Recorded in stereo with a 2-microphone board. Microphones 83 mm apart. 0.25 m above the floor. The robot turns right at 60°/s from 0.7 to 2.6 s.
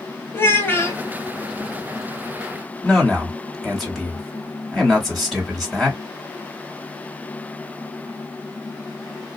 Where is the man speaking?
Centre (ahead or behind), 1.2 m.